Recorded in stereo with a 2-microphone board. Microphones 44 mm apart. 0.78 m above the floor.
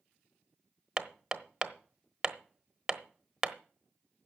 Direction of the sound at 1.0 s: 10° right (ahead or behind).